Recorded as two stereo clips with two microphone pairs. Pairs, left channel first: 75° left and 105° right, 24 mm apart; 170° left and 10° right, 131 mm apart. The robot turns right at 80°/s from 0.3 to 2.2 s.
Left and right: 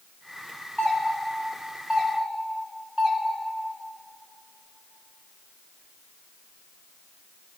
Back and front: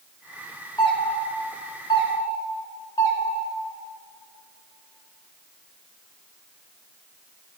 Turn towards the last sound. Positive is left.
turn(degrees=-135)